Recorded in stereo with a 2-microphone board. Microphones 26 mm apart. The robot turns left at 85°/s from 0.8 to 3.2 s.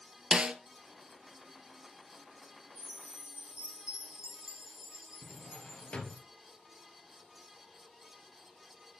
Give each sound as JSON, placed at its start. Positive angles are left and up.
{"t": 0.3, "sound": "a snare drum", "side_deg": -35, "distance_m": 0.8}
{"t": 2.8, "sound": "a chime", "azimuth_deg": -115, "distance_m": 6.5}
{"t": 5.2, "sound": "a drawer", "side_deg": 45, "distance_m": 2.0}